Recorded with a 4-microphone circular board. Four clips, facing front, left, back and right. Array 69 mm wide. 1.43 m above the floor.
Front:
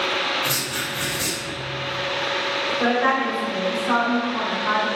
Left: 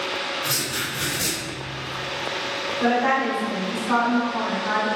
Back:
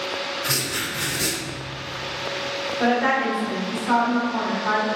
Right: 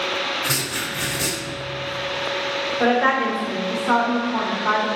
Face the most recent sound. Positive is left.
turn(degrees=-100)